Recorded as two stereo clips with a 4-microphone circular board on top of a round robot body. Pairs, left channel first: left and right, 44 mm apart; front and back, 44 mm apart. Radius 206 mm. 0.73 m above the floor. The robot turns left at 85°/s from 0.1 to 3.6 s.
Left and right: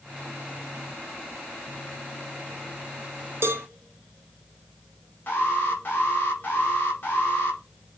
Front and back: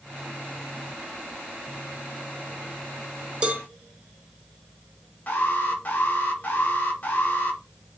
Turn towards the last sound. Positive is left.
turn(degrees=50)